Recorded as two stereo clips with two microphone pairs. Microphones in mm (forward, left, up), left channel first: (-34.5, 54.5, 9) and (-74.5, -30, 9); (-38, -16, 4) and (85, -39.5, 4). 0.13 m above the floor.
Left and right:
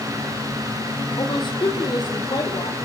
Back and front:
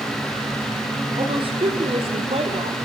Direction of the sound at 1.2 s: 35° left.